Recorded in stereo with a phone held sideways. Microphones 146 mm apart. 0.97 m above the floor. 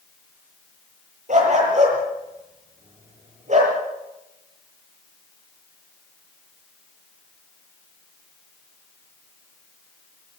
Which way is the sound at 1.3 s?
60° right (ahead or behind).